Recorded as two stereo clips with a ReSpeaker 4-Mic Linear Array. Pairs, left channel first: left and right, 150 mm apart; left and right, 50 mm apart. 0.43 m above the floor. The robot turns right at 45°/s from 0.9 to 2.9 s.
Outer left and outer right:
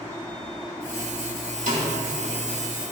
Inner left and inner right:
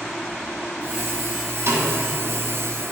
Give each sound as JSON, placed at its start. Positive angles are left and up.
{"t": 1.7, "sound": "a snare drum", "side_deg": -65, "distance_m": 2.5}